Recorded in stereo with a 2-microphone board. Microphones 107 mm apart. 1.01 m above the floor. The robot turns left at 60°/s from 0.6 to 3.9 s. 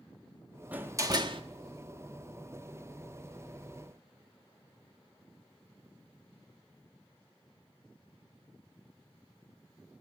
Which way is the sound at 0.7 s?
15° right.